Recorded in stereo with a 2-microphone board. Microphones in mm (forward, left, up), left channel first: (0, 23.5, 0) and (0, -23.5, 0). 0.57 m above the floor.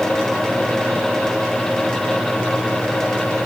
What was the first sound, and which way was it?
Only background noise.